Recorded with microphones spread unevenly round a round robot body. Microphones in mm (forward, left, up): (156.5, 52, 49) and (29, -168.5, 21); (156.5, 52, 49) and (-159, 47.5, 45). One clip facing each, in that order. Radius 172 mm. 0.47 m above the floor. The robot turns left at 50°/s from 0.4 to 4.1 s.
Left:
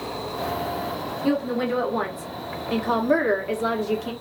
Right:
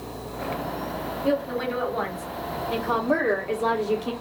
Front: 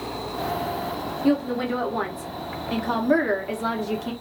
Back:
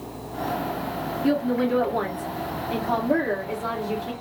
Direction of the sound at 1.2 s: 105° left.